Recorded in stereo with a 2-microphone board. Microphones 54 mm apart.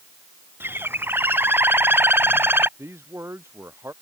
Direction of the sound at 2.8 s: 55° right (ahead or behind).